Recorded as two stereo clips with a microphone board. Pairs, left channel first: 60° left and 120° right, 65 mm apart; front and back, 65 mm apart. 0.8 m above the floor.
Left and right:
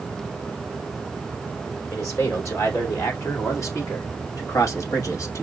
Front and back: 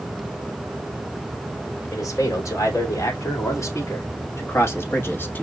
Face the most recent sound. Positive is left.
turn(degrees=50)